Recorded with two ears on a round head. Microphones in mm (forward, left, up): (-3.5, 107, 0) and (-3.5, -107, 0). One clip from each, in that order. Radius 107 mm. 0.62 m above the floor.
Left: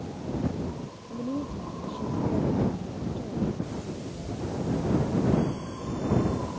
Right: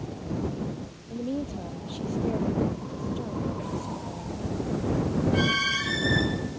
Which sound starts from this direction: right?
A woman speaking, at 1.1 s.